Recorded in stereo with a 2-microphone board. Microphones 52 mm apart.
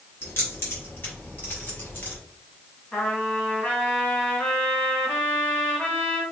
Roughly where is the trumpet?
Left.